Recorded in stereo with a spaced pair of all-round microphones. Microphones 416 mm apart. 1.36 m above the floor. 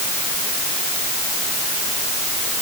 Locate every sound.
Only background noise.